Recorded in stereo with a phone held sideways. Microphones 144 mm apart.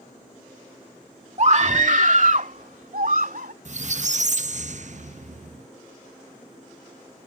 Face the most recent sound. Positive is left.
turn(degrees=-55)  # may be behind; listen again after turning